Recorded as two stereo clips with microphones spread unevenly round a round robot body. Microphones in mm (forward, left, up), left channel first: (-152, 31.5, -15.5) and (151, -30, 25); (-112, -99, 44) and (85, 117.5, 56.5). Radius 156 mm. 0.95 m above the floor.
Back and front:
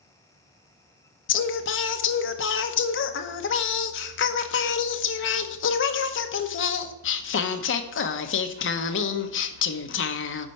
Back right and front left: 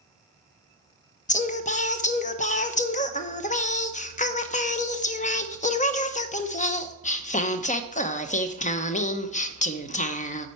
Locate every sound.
1.3 s singing: 175° left, 0.8 m